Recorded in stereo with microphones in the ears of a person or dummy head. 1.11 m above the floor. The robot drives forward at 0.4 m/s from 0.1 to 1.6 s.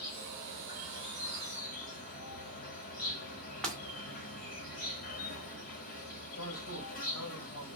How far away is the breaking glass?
About 0.9 m.